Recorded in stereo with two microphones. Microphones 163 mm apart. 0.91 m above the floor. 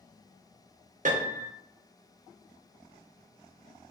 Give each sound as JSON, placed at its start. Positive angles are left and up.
{"t": 1.1, "sound": "a piano", "side_deg": -55, "distance_m": 0.6}